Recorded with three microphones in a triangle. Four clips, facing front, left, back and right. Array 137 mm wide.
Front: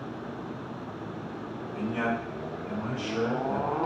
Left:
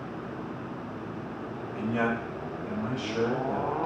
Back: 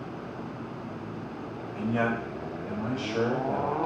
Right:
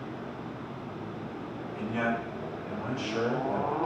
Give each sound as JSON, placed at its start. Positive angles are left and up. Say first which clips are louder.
{"t": 1.8, "sound": "a man speaking", "louder": "left 2 dB, back 2 dB", "azimuth_deg": 170, "distance_m": 2.5}